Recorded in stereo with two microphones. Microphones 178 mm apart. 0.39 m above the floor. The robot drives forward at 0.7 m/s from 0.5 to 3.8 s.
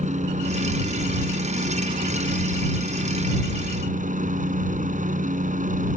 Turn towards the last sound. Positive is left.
turn(degrees=-45)  # may be behind; listen again after turning